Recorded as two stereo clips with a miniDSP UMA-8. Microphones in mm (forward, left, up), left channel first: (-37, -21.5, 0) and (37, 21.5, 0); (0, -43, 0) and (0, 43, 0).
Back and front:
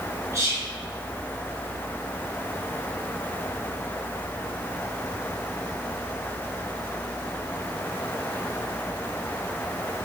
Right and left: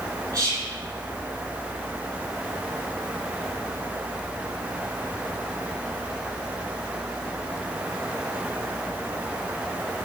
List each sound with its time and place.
0.3 s whispering: 70° left, 2.0 m